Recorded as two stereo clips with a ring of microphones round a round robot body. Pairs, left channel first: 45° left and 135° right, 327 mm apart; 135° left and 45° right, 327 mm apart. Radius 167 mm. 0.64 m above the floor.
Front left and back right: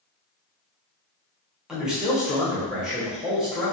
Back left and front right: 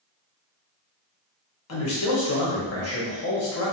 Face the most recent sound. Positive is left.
turn(degrees=140)